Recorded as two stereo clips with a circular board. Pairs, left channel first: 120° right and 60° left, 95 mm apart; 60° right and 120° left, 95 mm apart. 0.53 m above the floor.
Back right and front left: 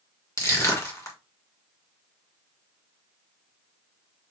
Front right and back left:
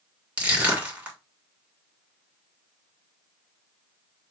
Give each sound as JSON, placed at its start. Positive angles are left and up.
{"t": 0.4, "sound": "crushing", "azimuth_deg": -170, "distance_m": 2.0}